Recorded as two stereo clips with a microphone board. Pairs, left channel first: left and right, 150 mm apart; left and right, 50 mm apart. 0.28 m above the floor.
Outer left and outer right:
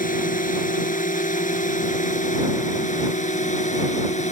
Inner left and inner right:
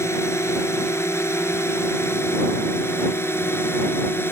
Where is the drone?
65° left (ahead or behind); by 4.3 s 50° left (ahead or behind).